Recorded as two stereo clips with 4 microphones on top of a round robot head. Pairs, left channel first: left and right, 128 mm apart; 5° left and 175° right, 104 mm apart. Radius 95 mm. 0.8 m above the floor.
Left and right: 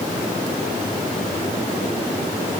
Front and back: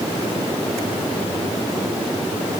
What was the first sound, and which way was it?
Only background noise.